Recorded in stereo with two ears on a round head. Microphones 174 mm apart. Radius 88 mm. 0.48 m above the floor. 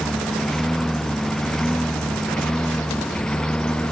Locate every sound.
0.0 s a lawn mower: centre (ahead or behind); by 3.9 s 5° left (ahead or behind)